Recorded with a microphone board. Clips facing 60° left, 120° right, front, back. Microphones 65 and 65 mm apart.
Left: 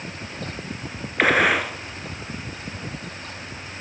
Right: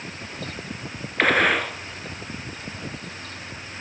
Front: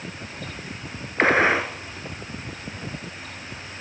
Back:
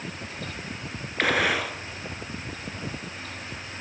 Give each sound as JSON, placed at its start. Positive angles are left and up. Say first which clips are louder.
{"t": 1.2, "sound": "a gunshot", "louder": "left 1 dB, front 5 dB", "azimuth_deg": -20, "distance_m": 1.0}